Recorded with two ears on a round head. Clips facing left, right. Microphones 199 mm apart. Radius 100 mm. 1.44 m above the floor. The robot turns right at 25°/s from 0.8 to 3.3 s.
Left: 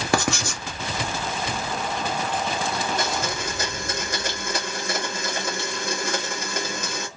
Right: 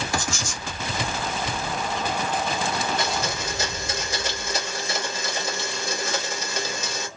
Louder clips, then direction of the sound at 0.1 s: Left 6 dB; 50° left (ahead or behind).